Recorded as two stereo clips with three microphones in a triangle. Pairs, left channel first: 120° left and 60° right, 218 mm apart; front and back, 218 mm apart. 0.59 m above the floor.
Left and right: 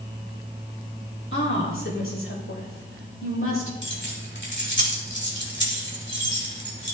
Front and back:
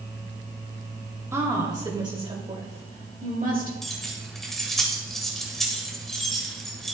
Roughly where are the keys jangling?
Left.